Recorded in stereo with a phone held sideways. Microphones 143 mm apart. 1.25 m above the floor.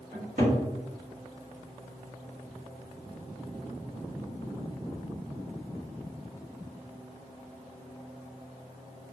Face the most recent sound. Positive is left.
turn(degrees=-75)  # may be behind; listen again after turning